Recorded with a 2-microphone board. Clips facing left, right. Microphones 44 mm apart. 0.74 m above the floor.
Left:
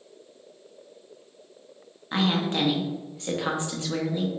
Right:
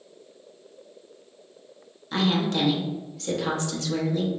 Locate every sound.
2.1 s a woman speaking: 25° left (ahead or behind), 0.8 m